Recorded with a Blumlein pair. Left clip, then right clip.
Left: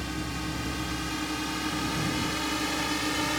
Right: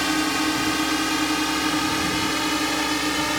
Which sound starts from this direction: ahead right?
A drone, at 0.0 s.